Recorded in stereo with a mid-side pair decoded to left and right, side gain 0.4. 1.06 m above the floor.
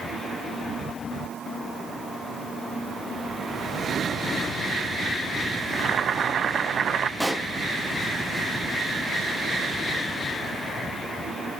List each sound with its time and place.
5.7 s boiling: 55° right, 0.7 m
7.2 s a pop: straight ahead, 1.7 m